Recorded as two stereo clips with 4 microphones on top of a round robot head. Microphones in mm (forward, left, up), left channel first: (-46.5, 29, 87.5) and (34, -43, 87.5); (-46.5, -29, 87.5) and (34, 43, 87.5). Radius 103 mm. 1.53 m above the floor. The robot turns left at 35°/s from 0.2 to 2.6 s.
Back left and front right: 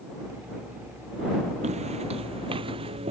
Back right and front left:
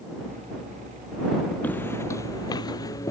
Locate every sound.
1.6 s footsteps: 60° right; by 3.1 s 75° right